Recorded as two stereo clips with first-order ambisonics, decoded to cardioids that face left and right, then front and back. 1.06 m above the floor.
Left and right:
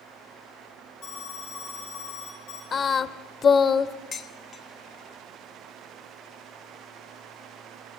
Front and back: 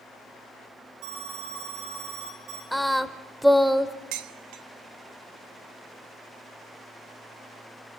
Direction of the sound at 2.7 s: 90° left.